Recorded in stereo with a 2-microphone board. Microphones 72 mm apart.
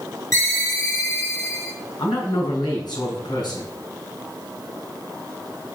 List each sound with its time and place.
0.3 s a ringtone: 40° left (ahead or behind), 5.5 m
2.0 s a man speaking: 75° left (ahead or behind), 6.5 m